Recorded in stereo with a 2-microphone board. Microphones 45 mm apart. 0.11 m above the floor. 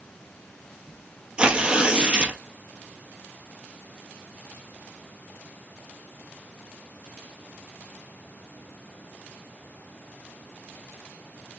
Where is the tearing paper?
25° right (ahead or behind), 1.0 m.